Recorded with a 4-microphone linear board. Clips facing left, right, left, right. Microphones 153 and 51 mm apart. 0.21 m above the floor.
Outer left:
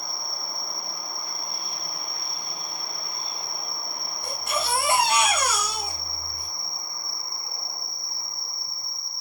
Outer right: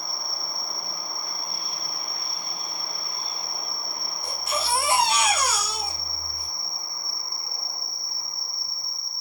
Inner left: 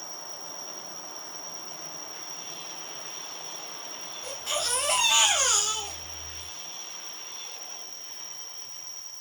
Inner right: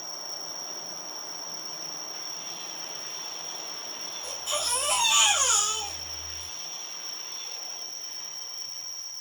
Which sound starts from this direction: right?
An insect, at 0.0 s.